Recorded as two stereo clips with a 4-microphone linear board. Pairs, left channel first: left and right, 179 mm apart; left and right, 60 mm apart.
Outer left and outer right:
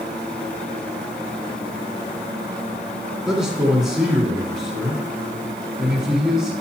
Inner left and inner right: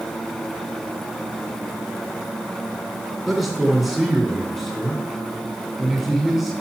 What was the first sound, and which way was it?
A man speaking, centre (ahead or behind).